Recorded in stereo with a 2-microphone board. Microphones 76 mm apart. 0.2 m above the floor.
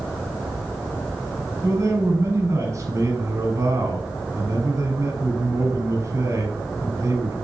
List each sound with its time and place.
1.6 s a man speaking: 35° right (ahead or behind), 1.3 m